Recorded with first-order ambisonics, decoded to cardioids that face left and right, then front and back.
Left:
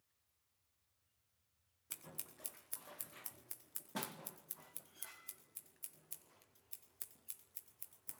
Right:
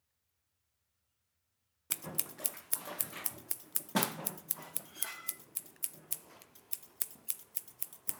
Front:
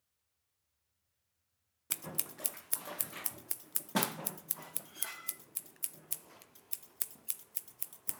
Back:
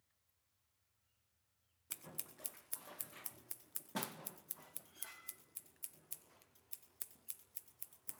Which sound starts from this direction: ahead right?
Scissors, at 1.9 s.